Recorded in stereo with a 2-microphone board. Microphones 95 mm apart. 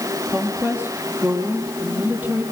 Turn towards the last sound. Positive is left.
turn(degrees=-15)  # may be behind; listen again after turning